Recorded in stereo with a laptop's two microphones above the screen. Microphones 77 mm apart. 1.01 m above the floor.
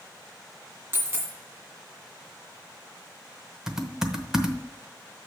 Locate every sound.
0.9 s a dropped coin: 30° right (ahead or behind), 1.9 m
3.7 s typing on a keyboard: 5° right (ahead or behind), 0.9 m